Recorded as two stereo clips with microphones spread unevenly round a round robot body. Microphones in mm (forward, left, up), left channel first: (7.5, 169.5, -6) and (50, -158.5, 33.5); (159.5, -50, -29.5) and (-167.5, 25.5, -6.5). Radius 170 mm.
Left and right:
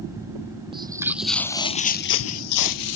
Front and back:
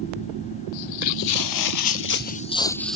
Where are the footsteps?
10° right; by 3.0 s 80° left.